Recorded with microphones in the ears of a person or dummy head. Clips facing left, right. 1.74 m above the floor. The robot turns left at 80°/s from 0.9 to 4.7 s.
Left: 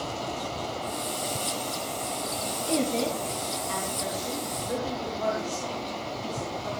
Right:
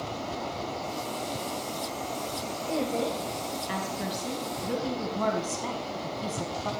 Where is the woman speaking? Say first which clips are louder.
Left 2 dB; 40° left, 1.7 m; by 6.7 s 120° right, 1.7 m.